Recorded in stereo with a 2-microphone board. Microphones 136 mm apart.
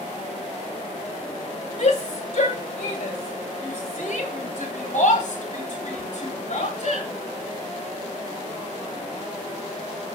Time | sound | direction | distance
1.8 | a shout | 60° left (ahead or behind) | 2 m